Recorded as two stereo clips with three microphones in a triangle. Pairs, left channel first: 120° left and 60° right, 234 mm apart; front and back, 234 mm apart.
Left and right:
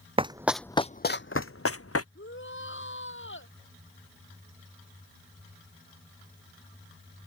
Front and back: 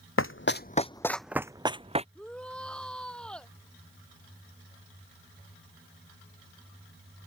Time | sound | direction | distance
0.2 | running footsteps | 5° left | ?
2.1 | a shout | 85° left | ?